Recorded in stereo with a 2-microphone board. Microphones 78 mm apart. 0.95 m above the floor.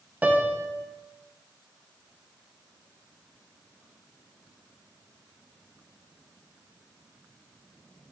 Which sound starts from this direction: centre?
A piano, at 0.2 s.